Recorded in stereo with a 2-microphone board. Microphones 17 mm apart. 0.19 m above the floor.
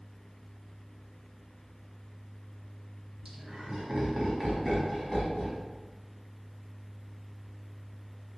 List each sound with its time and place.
3.2 s laughter: 20° right (ahead or behind), 1.3 m; by 5.6 s 35° left (ahead or behind), 1.4 m